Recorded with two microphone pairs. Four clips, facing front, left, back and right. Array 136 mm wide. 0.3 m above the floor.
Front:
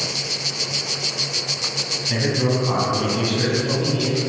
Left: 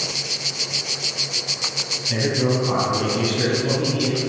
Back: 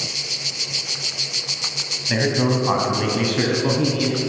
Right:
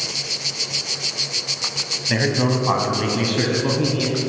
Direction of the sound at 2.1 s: 115° right.